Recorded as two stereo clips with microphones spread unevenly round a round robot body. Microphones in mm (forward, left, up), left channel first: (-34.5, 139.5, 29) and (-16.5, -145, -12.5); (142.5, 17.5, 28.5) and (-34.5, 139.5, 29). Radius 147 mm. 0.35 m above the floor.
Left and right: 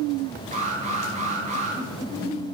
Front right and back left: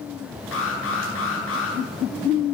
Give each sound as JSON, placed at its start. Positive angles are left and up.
{"t": 0.5, "sound": "an alarm", "azimuth_deg": -20, "distance_m": 9.0}